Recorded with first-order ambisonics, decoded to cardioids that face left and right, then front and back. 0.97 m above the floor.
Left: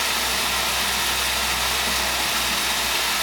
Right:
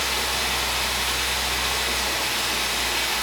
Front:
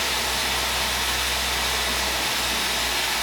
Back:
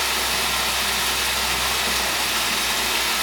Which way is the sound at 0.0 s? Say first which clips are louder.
Left 2 dB, back 2 dB; 140° left.